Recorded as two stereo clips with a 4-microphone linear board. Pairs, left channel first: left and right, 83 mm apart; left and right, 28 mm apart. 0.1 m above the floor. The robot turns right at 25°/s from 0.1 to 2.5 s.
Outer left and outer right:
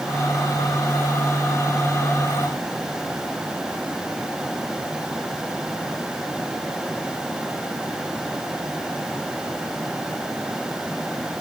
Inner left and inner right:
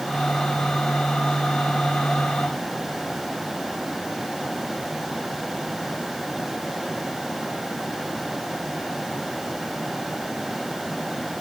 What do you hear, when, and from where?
Only background noise.